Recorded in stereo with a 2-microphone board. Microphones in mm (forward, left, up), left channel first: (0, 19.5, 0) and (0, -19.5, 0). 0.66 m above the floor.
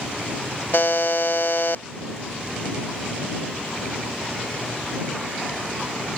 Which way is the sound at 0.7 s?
65° left (ahead or behind).